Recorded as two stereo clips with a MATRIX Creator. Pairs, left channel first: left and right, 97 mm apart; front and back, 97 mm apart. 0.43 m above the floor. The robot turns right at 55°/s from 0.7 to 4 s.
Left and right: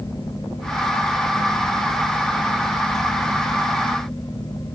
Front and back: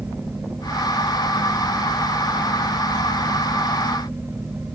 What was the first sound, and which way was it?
Only background noise.